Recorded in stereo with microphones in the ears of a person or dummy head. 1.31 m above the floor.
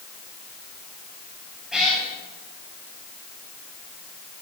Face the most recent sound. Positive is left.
turn(degrees=0)  # may be behind; listen again after turning